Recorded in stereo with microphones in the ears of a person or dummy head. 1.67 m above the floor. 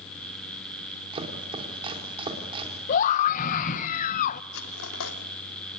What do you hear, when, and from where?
1.1 s chopping: 20° right (ahead or behind), 3.5 m
2.9 s a scream: 50° left (ahead or behind), 1.2 m
4.5 s cutlery clinking: 70° left (ahead or behind), 2.5 m